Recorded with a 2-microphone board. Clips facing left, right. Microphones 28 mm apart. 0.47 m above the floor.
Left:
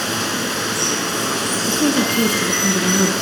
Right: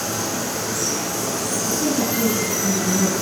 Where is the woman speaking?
70° left (ahead or behind), 6.5 m.